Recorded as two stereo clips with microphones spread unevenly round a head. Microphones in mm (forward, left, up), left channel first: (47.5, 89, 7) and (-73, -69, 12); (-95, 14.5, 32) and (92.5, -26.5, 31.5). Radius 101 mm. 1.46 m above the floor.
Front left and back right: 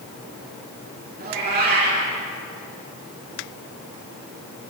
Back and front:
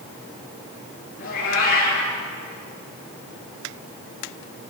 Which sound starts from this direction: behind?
A cat meowing, at 1.2 s.